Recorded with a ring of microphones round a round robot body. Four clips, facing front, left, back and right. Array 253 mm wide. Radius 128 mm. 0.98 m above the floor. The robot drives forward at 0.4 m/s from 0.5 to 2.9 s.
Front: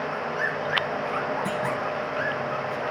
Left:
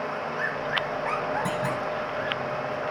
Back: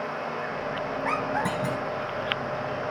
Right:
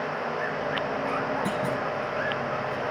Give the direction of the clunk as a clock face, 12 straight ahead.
6 o'clock.